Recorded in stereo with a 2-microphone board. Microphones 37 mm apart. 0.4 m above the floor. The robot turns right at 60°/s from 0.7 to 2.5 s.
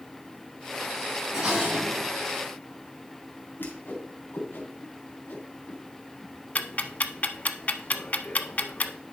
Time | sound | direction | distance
1.3 | dishes clattering | 170° right | 4.5 m
3.6 | a whoosh | 65° left (ahead or behind) | 3 m
6.5 | ticking | 40° left (ahead or behind) | 0.6 m